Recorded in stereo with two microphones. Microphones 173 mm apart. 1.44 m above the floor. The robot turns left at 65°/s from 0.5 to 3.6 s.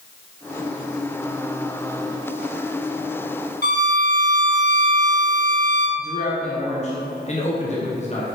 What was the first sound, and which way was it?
A violin, 70° left (ahead or behind).